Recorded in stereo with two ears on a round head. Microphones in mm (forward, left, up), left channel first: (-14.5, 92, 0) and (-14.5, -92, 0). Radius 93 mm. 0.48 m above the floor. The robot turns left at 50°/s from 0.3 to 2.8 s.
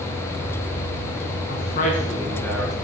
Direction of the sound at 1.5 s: 60° left.